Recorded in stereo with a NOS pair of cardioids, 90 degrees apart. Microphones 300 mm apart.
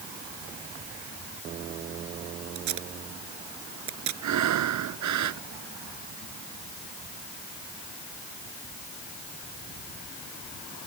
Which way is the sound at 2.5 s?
70° right.